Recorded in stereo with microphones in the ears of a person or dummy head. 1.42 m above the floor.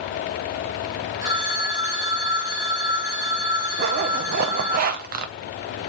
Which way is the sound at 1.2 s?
15° right (ahead or behind).